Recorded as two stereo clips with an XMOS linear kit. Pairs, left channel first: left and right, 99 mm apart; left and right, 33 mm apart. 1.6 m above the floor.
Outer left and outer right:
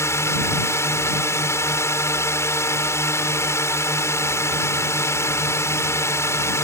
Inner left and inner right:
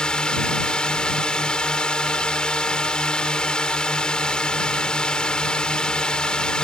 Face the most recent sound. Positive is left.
turn(degrees=30)  # may be behind; listen again after turning